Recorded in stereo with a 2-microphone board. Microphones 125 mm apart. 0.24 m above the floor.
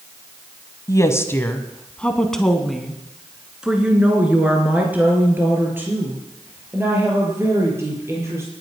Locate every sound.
0.9 s a woman speaking: 30° left (ahead or behind), 1.3 m; by 8.5 s 20° right (ahead or behind), 5 m